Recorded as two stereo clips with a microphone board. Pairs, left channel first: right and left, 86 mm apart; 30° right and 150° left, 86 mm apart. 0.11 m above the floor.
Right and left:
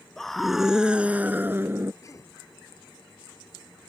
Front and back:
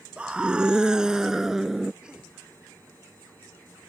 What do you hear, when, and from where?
0.2 s a scream: 165° right; by 1.9 s 65° left
2.0 s a cough: 135° right